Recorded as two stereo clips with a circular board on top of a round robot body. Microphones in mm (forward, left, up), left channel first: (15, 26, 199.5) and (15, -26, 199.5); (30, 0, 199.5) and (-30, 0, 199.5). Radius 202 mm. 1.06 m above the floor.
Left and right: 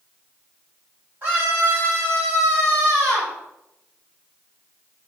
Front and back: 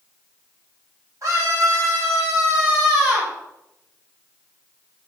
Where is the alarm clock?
I don't hear an alarm clock.